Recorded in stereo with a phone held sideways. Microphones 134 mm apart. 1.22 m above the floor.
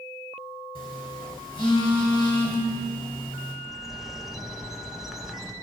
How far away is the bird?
About 0.7 m.